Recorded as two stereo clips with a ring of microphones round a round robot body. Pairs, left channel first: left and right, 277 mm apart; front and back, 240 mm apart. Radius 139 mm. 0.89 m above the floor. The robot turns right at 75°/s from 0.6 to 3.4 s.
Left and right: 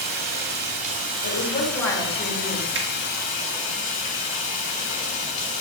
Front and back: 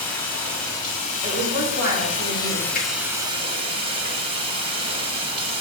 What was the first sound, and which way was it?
Running water, 80° right.